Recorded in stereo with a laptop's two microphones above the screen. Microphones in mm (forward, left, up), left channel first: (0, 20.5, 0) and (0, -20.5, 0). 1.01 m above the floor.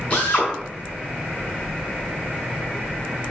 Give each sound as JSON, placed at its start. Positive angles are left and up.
{"t": 0.1, "sound": "a drill", "side_deg": 35, "distance_m": 5.5}